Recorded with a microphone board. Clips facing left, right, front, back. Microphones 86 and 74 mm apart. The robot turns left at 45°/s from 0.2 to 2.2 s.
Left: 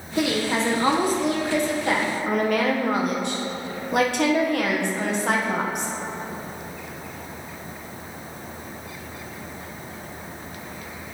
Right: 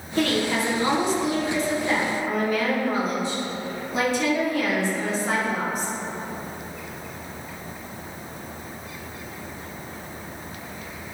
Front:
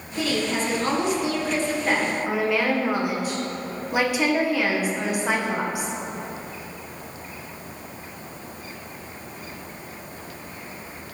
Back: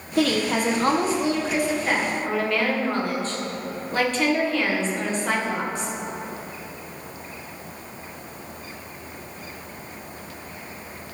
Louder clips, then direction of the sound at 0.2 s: Even, back 3 dB; 170° left.